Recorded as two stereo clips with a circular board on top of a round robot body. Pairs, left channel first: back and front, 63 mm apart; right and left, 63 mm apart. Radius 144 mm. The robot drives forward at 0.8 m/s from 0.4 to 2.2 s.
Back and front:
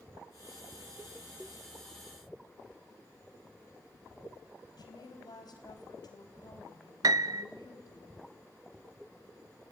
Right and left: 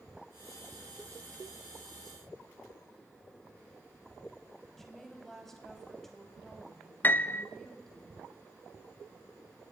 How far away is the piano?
About 0.6 m.